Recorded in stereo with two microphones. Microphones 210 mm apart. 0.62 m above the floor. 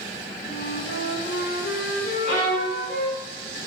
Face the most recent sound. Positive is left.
turn(degrees=60)  # may be behind; listen again after turning